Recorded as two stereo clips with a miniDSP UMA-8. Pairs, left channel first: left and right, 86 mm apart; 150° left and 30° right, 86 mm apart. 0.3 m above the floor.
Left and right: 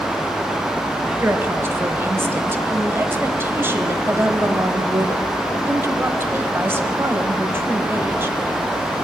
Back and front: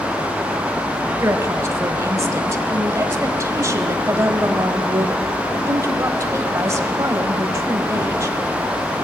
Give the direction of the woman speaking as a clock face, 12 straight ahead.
2 o'clock.